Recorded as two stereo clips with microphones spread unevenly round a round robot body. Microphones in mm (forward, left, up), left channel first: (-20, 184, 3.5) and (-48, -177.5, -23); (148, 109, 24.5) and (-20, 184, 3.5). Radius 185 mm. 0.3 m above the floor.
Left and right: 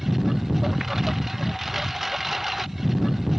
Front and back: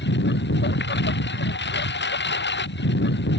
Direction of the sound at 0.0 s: 5° right.